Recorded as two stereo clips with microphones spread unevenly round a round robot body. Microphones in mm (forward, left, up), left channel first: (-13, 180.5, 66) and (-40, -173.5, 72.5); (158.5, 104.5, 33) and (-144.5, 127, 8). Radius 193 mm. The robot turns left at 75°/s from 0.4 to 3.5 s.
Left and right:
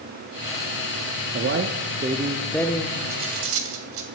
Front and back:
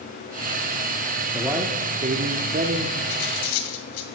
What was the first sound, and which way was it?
A man speaking, 100° right.